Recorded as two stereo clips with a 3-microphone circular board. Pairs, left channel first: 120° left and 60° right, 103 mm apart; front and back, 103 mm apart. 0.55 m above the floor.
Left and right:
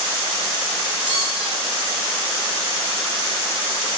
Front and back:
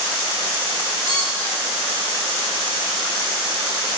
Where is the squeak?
65° right, 1.4 m.